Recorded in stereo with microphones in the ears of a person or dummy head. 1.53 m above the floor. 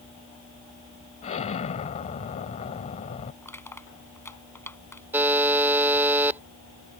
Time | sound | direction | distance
1.2 | an explosion | 40° left (ahead or behind) | ?
3.4 | crushing | 15° left (ahead or behind) | ?
5.1 | a buzzer | 5° right (ahead or behind) | ?